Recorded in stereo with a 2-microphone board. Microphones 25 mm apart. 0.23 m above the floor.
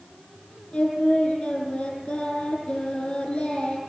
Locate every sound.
0.7 s singing: 55° left (ahead or behind), 6.5 m